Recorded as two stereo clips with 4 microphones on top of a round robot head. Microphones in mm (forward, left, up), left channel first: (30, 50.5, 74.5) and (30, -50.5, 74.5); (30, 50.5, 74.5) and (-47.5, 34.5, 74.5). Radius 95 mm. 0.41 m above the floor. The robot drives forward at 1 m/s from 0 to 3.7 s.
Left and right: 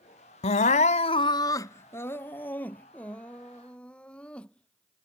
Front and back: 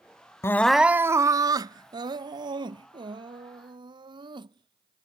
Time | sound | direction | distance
0.4 | crying | 65° left | ?